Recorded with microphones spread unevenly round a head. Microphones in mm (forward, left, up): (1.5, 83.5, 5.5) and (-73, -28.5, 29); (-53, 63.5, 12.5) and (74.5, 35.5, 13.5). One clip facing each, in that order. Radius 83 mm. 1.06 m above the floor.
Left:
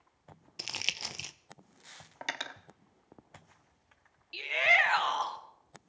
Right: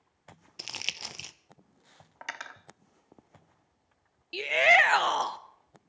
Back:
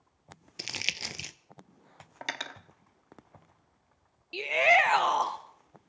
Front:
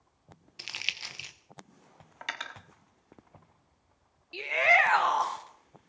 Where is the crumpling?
140° left, 0.7 m.